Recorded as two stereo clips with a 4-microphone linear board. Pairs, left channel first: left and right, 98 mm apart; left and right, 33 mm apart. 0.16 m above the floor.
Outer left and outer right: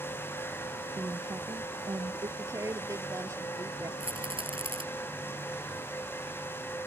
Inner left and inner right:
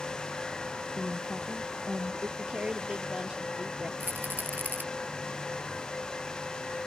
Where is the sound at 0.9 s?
45° right (ahead or behind); by 2.3 s 55° right (ahead or behind).